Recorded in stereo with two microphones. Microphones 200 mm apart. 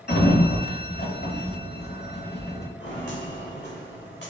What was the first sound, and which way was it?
A sliding door, 65° left (ahead or behind).